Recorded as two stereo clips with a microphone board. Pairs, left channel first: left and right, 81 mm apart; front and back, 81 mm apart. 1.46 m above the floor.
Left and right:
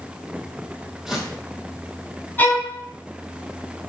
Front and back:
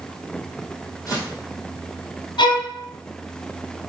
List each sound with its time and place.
1.1 s footsteps: 10° right, 1.9 m
2.4 s a violin: 20° left, 1.1 m